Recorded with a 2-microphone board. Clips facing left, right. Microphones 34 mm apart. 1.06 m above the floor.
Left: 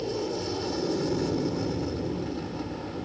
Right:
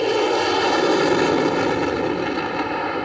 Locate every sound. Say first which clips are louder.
0.0 s an aircraft: right 12 dB; 70° right (ahead or behind)